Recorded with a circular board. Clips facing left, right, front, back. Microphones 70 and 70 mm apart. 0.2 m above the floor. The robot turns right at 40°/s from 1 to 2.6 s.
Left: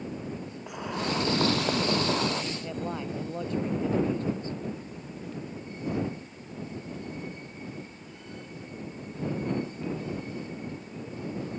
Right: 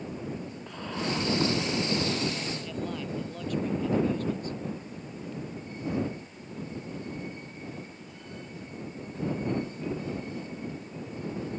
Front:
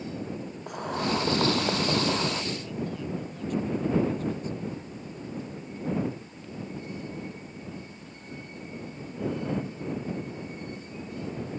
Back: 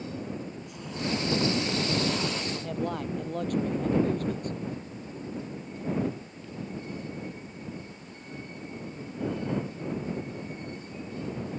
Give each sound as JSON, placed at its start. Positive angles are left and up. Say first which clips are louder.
{"t": 0.7, "sound": "boiling", "louder": "left 2 dB, front 5 dB", "azimuth_deg": 15}
{"t": 2.5, "sound": "a man speaking", "louder": "left 1 dB, back 2 dB", "azimuth_deg": 150}